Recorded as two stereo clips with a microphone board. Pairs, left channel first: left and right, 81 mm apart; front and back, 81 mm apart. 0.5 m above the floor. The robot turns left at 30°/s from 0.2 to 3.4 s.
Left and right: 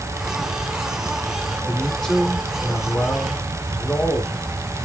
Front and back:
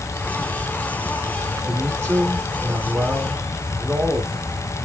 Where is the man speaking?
Straight behind, 1.4 m; by 4.5 s 130° left, 1.4 m.